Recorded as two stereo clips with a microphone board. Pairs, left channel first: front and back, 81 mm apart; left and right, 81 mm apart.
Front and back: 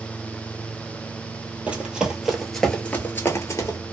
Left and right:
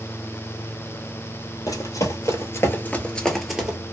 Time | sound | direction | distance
1.7 | running footsteps | 110° left | 1.1 m